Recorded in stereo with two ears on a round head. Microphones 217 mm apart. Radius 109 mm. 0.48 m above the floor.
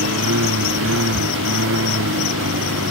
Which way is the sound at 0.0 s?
60° right (ahead or behind).